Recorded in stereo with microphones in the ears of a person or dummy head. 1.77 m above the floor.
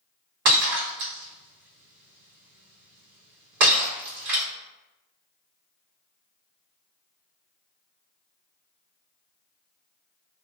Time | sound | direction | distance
0.5 | breaking glass | 60° right (ahead or behind) | 1.9 m